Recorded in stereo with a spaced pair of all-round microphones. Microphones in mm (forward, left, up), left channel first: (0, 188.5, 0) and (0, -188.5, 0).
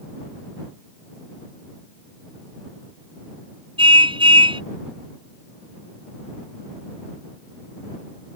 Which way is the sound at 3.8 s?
15° right (ahead or behind).